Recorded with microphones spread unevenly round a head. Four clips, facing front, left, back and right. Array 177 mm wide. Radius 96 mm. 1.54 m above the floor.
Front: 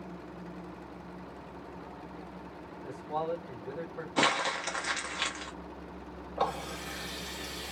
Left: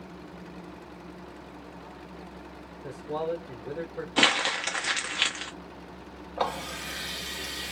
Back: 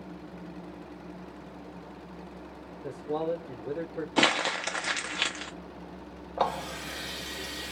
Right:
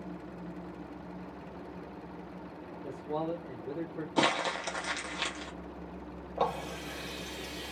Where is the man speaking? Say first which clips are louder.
Left 3 dB, back 3 dB; 175° right, 1.1 m.